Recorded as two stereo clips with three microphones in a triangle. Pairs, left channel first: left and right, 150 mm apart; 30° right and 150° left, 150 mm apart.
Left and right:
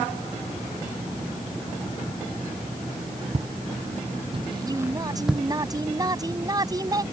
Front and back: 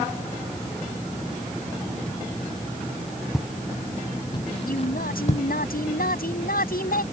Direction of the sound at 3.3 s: 120° right.